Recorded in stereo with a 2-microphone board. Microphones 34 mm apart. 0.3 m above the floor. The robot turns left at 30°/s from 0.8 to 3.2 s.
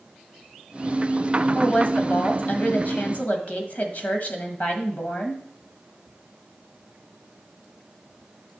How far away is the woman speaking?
About 1.5 m.